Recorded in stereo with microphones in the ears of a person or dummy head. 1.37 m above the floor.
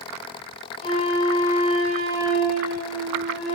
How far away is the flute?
About 4 m.